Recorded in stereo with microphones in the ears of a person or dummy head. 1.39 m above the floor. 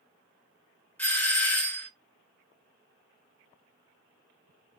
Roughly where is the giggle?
I don't hear a giggle.